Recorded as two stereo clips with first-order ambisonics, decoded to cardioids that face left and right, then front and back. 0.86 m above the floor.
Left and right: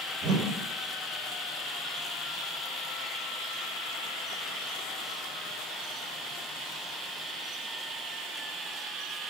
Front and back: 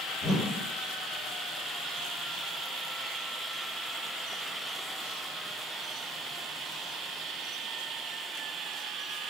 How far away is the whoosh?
About 0.8 m.